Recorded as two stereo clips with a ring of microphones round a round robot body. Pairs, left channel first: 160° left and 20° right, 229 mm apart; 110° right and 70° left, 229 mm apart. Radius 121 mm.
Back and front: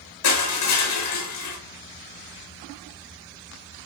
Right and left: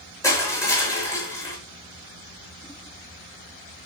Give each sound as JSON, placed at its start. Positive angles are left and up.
{"t": 0.2, "sound": "crushing", "azimuth_deg": 170, "distance_m": 6.0}